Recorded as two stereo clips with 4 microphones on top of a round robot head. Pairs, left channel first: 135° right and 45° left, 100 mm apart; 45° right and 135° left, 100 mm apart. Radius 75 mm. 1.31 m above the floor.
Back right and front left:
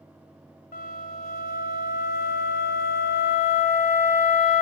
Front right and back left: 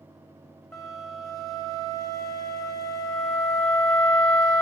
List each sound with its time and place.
0.7 s a flute: 135° right, 0.7 m